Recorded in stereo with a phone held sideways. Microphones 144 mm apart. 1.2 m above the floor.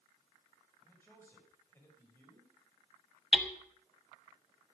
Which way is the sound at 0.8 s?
15° left (ahead or behind).